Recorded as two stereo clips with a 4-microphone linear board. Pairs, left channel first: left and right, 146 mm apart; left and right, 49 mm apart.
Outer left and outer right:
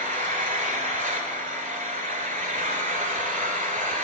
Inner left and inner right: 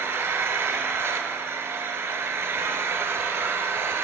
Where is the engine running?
65° right (ahead or behind), 1.1 m.